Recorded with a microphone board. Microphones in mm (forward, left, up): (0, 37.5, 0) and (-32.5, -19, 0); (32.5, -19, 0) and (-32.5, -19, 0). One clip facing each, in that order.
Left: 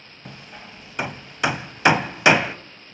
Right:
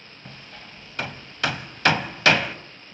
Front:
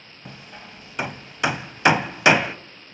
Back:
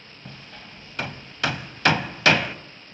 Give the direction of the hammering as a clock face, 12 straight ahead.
11 o'clock.